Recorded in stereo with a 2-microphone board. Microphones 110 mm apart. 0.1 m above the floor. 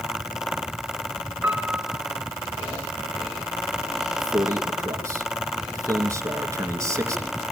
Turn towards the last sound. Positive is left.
turn(degrees=-25)  # may be behind; listen again after turning